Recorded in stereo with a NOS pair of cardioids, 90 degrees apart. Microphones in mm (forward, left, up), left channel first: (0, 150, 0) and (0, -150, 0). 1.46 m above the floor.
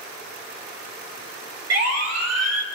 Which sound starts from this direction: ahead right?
A siren, at 1.7 s.